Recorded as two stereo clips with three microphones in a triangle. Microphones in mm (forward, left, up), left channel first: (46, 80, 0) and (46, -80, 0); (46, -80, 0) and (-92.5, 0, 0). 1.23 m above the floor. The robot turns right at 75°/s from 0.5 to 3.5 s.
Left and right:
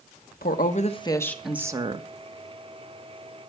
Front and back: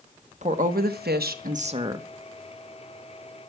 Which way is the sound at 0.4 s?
110° left.